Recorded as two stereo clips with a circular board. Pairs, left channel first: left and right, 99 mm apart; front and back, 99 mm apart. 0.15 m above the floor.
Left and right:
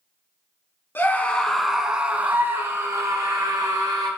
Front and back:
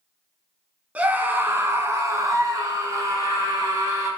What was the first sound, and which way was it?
A scream, 125° left.